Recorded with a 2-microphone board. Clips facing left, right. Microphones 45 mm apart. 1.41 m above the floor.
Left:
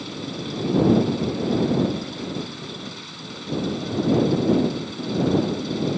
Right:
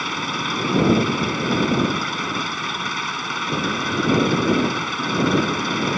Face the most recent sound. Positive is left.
turn(degrees=-60)  # may be behind; listen again after turning